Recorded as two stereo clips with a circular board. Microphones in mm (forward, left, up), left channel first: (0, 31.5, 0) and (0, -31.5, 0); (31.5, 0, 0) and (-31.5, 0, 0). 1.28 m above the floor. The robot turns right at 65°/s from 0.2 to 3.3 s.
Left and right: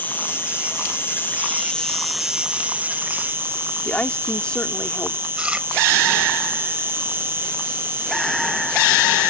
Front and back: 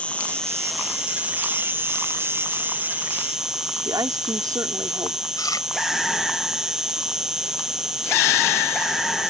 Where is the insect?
55° left; by 9.3 s 105° right.